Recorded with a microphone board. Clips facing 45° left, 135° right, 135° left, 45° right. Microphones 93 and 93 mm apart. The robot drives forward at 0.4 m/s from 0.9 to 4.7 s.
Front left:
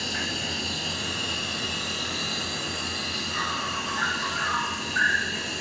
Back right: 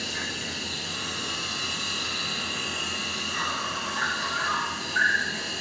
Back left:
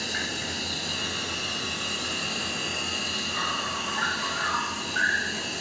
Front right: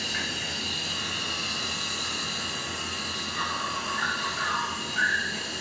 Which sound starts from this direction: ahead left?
An insect, at 0.0 s.